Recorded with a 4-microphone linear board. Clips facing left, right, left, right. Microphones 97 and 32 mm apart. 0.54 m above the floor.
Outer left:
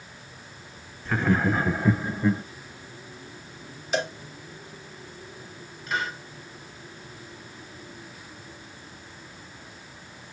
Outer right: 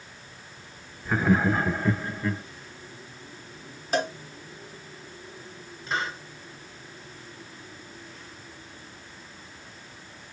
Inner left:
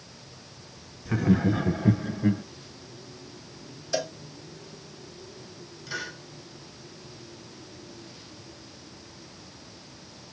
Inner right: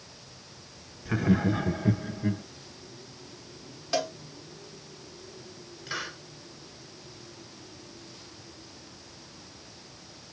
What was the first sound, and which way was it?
Laughter, 10° right (ahead or behind).